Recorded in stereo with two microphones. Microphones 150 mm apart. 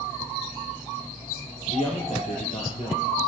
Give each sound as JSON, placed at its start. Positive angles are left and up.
{"t": 1.7, "sound": "a man speaking", "side_deg": 55, "distance_m": 5.0}